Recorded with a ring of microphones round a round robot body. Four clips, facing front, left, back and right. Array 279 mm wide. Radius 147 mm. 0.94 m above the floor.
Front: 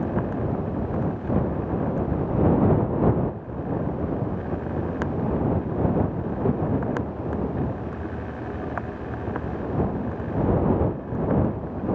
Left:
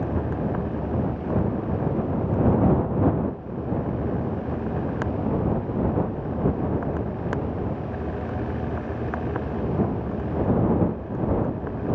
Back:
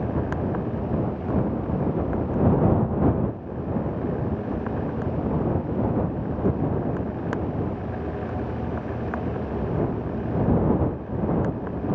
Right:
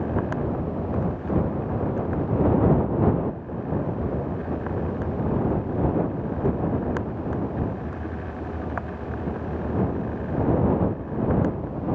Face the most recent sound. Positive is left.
No sound to turn to.